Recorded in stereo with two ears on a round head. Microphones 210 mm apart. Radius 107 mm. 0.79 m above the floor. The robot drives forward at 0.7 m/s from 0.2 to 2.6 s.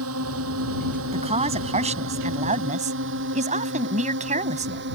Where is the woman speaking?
25° right (ahead or behind); by 4.8 s 30° right (ahead or behind).